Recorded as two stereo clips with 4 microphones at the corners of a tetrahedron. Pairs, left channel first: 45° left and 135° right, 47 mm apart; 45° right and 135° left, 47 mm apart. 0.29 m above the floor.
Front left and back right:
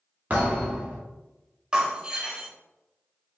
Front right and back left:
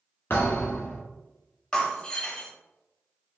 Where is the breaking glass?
90° right, 0.7 m.